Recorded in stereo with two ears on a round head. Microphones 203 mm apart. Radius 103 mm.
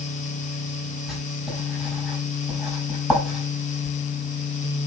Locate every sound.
1.1 s writing: centre (ahead or behind), 4.5 m